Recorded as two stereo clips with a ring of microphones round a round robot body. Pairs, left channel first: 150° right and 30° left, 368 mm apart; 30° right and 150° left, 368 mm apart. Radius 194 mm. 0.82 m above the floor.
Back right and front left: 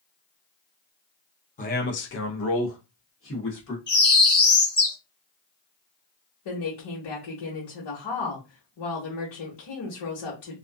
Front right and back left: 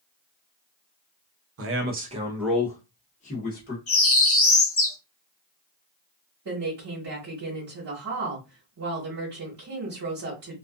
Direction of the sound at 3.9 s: 75° right.